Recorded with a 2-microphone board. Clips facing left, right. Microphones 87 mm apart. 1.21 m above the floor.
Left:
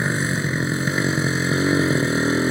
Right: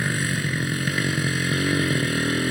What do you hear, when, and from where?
0.0 s a motorcycle: 25° left (ahead or behind)